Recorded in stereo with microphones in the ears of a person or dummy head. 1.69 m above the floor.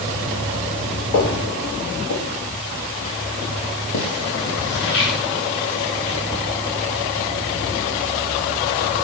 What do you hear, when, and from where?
1.1 s footsteps: 65° left (ahead or behind), 8.5 m; by 6.2 s 70° left (ahead or behind), 11.5 m